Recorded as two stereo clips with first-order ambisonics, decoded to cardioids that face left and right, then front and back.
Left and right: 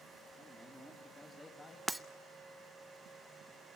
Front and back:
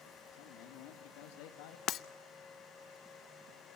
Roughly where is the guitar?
I don't hear a guitar.